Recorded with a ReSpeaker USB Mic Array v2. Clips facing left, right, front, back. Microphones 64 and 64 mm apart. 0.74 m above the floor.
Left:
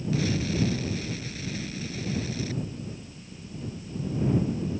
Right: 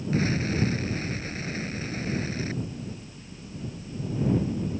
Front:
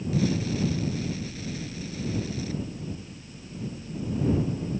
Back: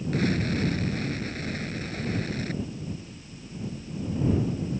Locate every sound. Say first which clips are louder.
0.1 s an explosion: right 2 dB, even; 145° right